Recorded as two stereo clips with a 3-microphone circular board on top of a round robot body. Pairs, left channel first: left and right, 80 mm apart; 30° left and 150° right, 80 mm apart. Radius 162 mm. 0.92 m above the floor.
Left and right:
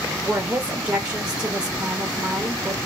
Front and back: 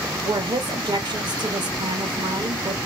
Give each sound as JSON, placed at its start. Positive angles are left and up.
{"t": 0.2, "sound": "a woman speaking", "azimuth_deg": -165, "distance_m": 1.1}